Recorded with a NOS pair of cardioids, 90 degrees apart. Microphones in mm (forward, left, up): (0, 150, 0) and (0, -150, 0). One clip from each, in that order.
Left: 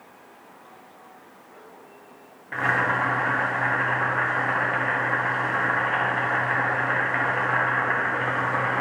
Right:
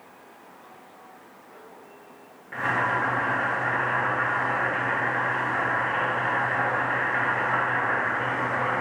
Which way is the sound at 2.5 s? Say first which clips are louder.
Left 2 dB; 30° left.